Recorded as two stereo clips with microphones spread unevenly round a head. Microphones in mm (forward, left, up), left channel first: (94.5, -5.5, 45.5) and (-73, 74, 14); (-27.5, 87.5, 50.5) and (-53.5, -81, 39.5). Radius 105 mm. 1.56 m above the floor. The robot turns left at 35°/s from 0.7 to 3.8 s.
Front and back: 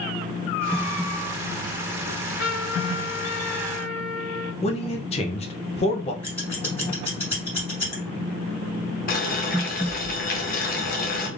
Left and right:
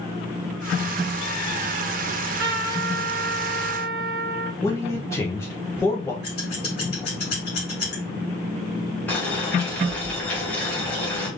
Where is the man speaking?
10° left, 0.7 m.